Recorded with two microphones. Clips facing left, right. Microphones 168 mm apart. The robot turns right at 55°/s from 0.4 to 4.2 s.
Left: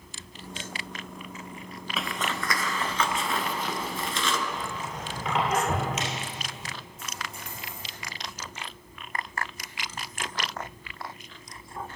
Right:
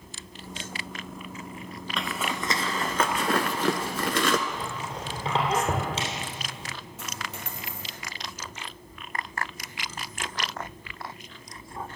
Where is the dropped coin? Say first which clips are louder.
Right 3 dB; 85° right, 2.5 m.